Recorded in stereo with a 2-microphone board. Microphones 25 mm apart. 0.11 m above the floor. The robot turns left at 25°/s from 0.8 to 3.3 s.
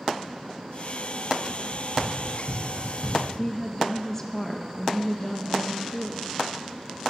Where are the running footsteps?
65° right (ahead or behind), 3 m; by 3.2 s 25° right (ahead or behind), 4 m.